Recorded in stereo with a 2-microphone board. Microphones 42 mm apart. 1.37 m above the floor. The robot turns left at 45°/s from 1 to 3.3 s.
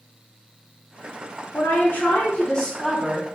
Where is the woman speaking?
60° left, 0.9 m; by 3.4 s 20° right, 0.9 m.